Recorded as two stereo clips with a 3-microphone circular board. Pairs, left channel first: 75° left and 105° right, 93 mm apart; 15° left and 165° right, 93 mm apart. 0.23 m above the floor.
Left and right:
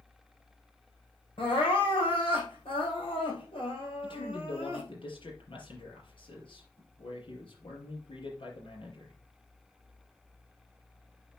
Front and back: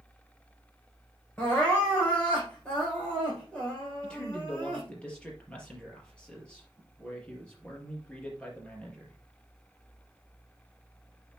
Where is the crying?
95° left, 5.5 m.